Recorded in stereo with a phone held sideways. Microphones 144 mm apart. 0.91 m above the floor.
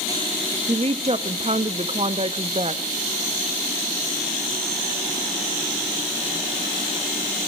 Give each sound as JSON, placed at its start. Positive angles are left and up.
{"t": 0.7, "sound": "a woman speaking", "side_deg": -45, "distance_m": 0.8}